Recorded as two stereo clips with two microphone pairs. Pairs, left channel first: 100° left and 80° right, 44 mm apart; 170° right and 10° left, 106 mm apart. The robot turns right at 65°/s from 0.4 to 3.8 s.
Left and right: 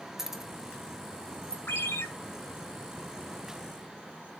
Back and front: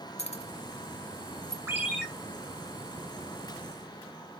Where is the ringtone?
75° left, 2.5 m; by 2.1 s 100° left, 2.5 m.